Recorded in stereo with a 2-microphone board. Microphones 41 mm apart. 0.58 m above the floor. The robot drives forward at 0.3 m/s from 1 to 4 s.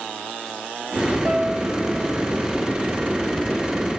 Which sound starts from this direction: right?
A piano, at 1.2 s.